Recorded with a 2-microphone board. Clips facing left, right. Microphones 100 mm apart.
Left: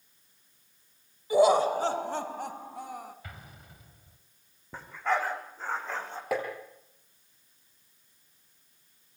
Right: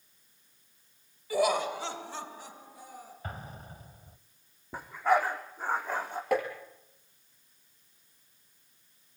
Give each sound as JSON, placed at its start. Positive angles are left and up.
{"t": 1.3, "sound": "laughter", "side_deg": 20, "distance_m": 1.4}
{"t": 3.2, "sound": "an explosion", "side_deg": -35, "distance_m": 2.0}
{"t": 4.7, "sound": "a dog barking", "side_deg": -10, "distance_m": 5.5}
{"t": 6.3, "sound": "tapping", "side_deg": 5, "distance_m": 6.5}